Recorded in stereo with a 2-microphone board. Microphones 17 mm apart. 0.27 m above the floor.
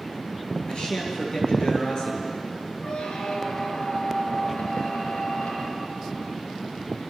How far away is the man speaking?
About 6 m.